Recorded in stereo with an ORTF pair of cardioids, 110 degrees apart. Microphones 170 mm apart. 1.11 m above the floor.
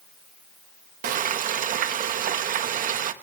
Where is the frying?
50° right, 1.1 m.